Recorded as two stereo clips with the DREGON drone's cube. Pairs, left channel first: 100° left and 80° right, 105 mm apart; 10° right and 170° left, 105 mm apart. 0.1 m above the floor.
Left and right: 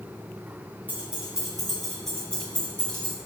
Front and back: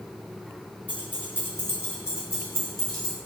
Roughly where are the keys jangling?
Ahead right.